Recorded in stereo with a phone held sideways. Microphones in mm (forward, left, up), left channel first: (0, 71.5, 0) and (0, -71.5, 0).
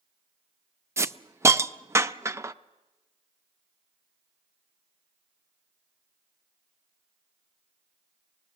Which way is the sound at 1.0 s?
20° right (ahead or behind).